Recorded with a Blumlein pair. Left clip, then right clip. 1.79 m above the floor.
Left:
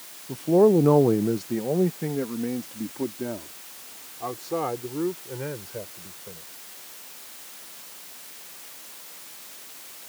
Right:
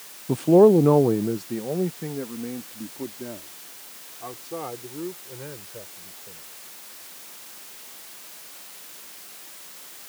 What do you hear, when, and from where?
0.3 s a man speaking: 30° right; by 6.4 s 20° left